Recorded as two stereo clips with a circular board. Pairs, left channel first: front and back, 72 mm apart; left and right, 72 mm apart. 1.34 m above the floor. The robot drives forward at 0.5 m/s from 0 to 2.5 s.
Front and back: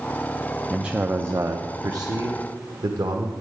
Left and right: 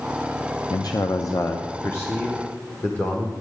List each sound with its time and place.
0.7 s a man speaking: 95° left, 0.5 m; by 3.3 s 155° left, 1.1 m